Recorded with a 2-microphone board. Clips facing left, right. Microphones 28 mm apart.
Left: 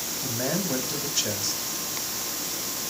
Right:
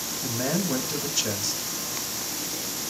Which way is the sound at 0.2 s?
5° left (ahead or behind).